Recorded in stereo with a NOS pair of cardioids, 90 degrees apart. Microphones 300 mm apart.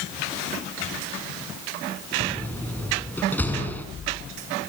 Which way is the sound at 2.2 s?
5° left.